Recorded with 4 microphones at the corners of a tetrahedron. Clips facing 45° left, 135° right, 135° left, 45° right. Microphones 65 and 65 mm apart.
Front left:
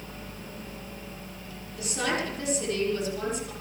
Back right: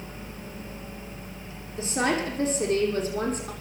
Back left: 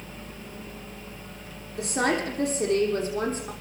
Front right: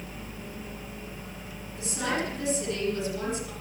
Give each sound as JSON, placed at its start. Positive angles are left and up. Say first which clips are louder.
{"t": 1.8, "sound": "a woman speaking", "louder": "back right 4 dB, back left 5 dB", "azimuth_deg": 165, "distance_m": 9.0}